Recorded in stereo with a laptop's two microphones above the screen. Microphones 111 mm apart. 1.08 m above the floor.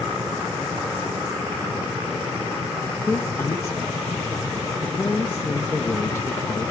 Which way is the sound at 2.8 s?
25° left (ahead or behind).